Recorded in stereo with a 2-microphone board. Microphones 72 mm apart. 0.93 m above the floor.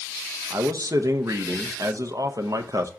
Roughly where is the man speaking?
Right.